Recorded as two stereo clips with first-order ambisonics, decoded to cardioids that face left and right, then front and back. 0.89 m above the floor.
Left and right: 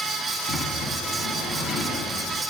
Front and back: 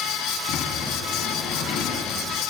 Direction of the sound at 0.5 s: 25° left.